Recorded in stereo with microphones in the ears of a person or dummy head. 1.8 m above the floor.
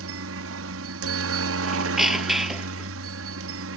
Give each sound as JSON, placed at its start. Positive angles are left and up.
{"t": 0.0, "sound": "a helicopter", "side_deg": -70}
{"t": 1.6, "sound": "a squeak", "side_deg": 0}